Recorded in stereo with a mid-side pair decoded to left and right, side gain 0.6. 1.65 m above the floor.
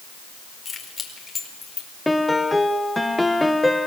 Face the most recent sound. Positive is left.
turn(degrees=5)